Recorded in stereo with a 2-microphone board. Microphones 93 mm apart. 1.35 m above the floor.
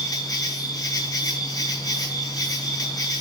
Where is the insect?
50° left (ahead or behind), 4.5 m.